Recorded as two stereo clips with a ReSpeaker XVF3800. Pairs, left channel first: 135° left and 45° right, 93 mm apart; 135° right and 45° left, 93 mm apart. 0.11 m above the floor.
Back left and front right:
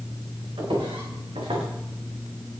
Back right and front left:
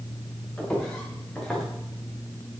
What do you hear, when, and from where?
0.6 s footsteps: 55° right, 8.5 m; by 1.6 s 50° right, 7.5 m